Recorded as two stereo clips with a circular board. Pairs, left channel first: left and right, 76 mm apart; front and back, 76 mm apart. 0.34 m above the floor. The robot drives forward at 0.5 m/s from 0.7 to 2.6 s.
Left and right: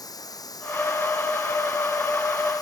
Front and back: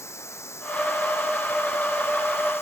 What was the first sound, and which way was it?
Running water, 55° left.